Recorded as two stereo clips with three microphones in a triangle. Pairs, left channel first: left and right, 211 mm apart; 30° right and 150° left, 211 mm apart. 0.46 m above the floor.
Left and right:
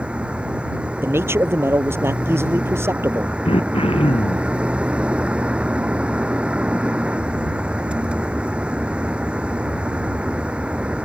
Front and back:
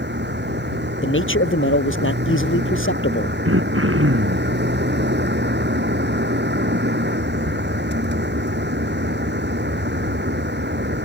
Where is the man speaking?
10° right.